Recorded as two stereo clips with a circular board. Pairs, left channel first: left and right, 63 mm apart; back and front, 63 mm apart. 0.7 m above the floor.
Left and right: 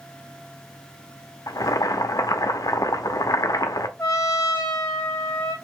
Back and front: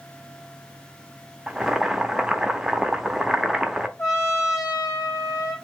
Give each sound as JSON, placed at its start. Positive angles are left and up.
{"t": 1.5, "sound": "boiling", "azimuth_deg": 80, "distance_m": 0.5}
{"t": 4.0, "sound": "a trumpet", "azimuth_deg": 140, "distance_m": 1.7}